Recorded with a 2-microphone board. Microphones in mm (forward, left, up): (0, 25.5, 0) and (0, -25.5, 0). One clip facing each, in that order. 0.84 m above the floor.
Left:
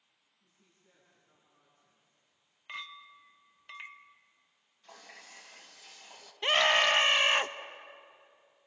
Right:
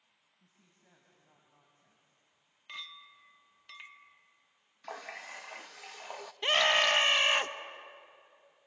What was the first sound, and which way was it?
A woman speaking, 60° right (ahead or behind).